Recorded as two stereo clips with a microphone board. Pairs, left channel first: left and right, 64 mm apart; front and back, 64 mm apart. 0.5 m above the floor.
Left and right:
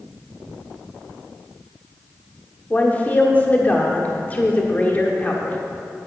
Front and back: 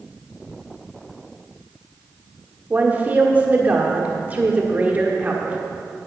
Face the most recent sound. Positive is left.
turn(degrees=135)